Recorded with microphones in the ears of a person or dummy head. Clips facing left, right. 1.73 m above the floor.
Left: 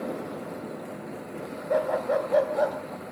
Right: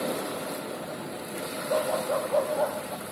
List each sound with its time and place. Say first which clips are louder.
1.7 s a dog barking: left 2 dB; 20° left (ahead or behind), 2 m